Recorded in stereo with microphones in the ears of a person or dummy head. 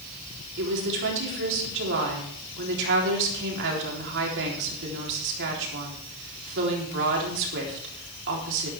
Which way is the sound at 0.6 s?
65° right (ahead or behind).